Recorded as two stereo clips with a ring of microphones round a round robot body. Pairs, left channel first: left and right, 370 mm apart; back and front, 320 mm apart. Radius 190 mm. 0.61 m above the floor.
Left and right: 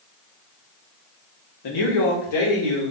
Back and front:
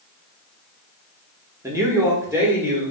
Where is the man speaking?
80° left, 1.0 m; by 2.9 s 85° left, 1.8 m.